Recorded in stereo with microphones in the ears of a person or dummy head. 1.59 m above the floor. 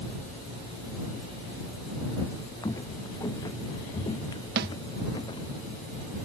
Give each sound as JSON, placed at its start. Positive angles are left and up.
{"t": 2.6, "sound": "footsteps", "side_deg": 20}
{"t": 4.6, "sound": "a snare drum", "side_deg": -60}